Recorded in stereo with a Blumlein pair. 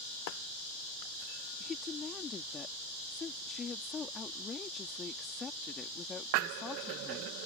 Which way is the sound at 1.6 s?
20° left.